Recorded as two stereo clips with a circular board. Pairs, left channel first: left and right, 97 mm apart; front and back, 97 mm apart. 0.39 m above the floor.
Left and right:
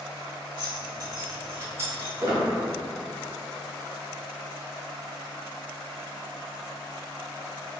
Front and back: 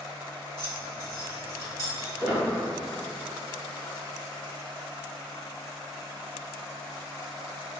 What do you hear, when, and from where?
0.6 s keys jangling: 40° right, 1.9 m; by 2.1 s 35° right, 0.9 m
2.2 s a squeak: 105° right, 1.0 m